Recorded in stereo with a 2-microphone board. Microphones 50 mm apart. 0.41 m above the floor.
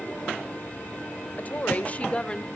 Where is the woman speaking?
35° left (ahead or behind), 1.4 m; by 2.5 s 15° left (ahead or behind), 1.1 m.